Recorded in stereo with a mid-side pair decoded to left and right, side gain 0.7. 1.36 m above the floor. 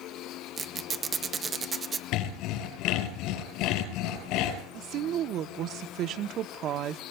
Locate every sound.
0.6 s a squeak: 25° right, 0.7 m
2.1 s sawing: 65° left, 6 m
4.7 s a woman speaking: 50° right, 0.7 m